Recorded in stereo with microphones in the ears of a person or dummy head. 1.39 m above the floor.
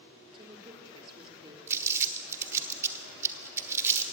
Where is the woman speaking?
25° right (ahead or behind), 3 m.